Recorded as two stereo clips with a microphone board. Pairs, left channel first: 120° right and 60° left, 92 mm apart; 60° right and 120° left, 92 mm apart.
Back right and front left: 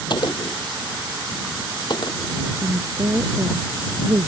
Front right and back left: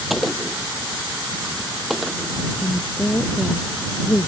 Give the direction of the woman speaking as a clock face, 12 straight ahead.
12 o'clock.